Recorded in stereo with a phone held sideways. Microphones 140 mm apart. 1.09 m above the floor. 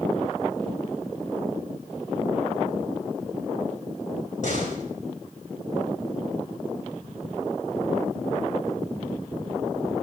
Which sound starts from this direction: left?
A door slam, at 4.4 s.